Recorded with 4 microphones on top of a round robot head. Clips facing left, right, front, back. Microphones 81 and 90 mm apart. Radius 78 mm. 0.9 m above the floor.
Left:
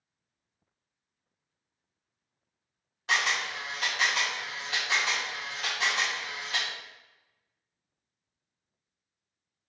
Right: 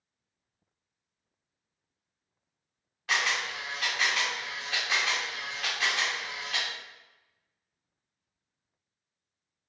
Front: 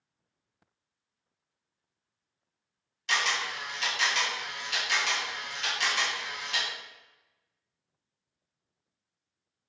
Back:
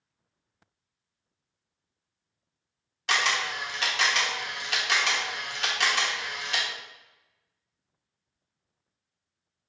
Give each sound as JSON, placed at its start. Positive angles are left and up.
{"t": 3.1, "sound": "a camera shutter", "azimuth_deg": 160, "distance_m": 0.6}